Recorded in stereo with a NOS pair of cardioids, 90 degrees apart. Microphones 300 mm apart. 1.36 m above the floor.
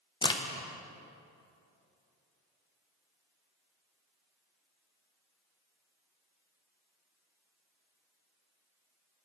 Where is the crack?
15° left, 0.8 m.